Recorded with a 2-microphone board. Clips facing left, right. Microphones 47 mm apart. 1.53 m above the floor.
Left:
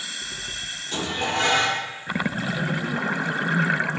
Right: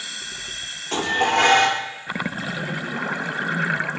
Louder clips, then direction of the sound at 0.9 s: Right 6 dB; 75° right (ahead or behind).